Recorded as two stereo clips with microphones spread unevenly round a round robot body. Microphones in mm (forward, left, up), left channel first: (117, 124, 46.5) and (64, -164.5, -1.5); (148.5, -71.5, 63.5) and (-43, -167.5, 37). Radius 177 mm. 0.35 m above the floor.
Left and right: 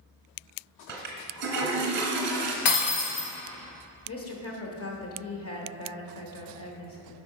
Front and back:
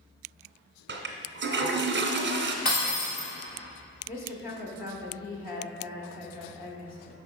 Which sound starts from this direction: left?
Breaking glass, at 2.6 s.